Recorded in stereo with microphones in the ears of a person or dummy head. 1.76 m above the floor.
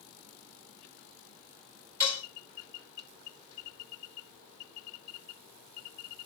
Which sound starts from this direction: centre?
Dishes clattering, at 2.0 s.